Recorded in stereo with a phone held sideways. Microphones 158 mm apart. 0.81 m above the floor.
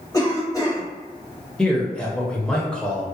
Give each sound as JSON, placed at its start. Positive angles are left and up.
{"t": 0.1, "sound": "a cough", "side_deg": 20, "distance_m": 1.2}
{"t": 1.6, "sound": "a man speaking", "side_deg": 5, "distance_m": 0.7}